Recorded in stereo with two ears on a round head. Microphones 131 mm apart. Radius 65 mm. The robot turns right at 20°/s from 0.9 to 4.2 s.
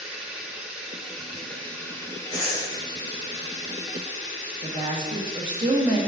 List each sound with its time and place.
0.0 s running water: 5° right, 2 m; by 6.1 s 60° left, 2 m
2.3 s breathing: 30° left (ahead or behind), 2.5 m; by 2.7 s 25° left (ahead or behind), 2.5 m
4.6 s a woman speaking: 35° right (ahead or behind), 1.5 m